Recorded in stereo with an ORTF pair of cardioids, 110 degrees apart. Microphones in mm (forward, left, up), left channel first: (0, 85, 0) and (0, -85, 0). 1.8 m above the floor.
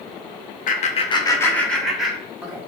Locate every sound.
0.7 s laughter: 55° left, 0.9 m; by 2.6 s 15° right, 1.9 m